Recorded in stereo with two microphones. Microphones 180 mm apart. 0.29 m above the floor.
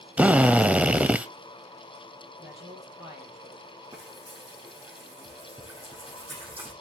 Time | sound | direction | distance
0.2 | a drill | 10° right (ahead or behind) | 0.7 m
2.4 | a man speaking | 15° right (ahead or behind) | 7 m
3.9 | frying | 30° right (ahead or behind) | 7.5 m